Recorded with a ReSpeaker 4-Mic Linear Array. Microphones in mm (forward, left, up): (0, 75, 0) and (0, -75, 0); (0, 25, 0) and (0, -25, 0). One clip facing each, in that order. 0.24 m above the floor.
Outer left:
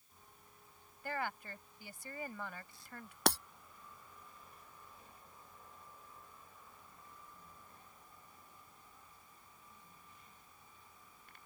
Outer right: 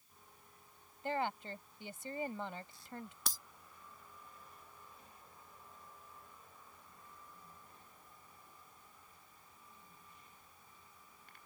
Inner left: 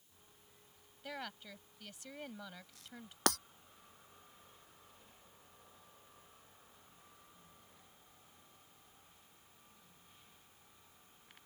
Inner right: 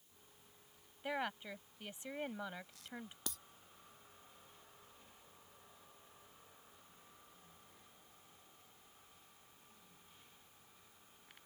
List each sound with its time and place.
1.0 s a woman speaking: 25° right (ahead or behind)
3.3 s breaking glass: 70° left (ahead or behind)